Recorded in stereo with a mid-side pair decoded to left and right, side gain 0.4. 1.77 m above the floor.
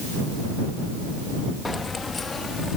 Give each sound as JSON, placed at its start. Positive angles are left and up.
{"t": 1.6, "sound": "keys jangling", "azimuth_deg": 30}